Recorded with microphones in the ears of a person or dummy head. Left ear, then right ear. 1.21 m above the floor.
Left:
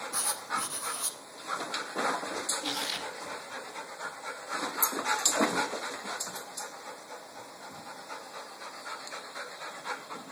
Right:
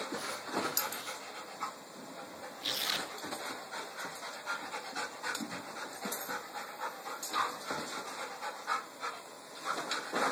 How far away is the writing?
About 2.5 m.